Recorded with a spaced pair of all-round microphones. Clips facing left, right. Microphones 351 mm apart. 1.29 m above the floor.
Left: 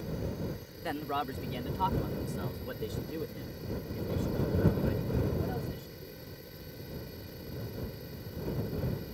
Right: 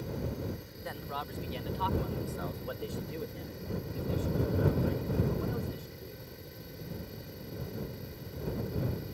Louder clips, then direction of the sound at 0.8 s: Left 7 dB; 80° left.